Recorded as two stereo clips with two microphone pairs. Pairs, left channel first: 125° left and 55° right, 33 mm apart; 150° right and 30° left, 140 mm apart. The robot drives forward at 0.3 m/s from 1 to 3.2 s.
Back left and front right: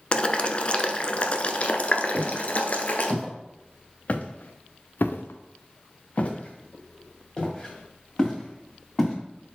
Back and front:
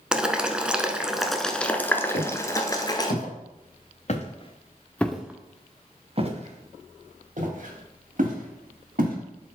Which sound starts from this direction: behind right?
Footsteps, at 2.1 s.